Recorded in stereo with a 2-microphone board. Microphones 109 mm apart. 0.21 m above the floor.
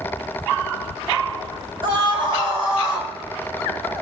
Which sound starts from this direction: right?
A scream, at 1.8 s.